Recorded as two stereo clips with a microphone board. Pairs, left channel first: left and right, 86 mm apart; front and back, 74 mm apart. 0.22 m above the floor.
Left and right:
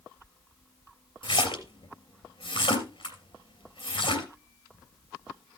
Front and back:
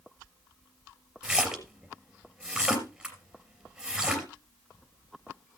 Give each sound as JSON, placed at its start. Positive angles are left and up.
{"t": 1.2, "sound": "a splash", "azimuth_deg": 95, "distance_m": 3.0}